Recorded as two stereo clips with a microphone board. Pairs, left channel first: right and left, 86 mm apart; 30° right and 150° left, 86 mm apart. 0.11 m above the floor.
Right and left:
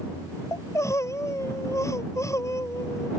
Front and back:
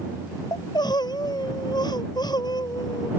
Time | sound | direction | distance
0.5 | crying | 40° right | ?